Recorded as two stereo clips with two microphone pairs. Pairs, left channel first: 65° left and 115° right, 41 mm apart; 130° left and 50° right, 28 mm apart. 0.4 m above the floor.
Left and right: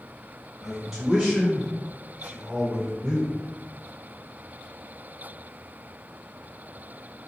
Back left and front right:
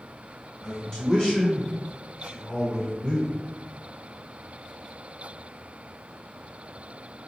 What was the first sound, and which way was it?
A man speaking, 165° left.